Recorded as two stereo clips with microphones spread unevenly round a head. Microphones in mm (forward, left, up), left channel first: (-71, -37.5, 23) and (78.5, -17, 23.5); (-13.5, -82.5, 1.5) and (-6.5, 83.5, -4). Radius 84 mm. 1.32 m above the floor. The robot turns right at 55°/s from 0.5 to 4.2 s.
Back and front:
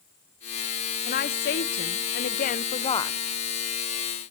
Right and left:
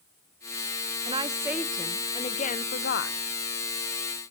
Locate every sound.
1.1 s a woman speaking: 145° left, 0.7 m; by 3.2 s 100° right, 0.7 m